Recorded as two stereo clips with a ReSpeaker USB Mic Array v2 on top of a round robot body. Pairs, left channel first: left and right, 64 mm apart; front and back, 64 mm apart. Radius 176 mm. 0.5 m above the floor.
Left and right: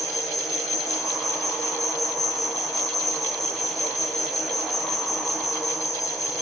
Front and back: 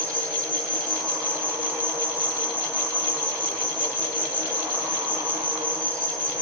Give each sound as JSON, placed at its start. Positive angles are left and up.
{"t": 0.0, "sound": "an insect", "azimuth_deg": 65, "distance_m": 9.5}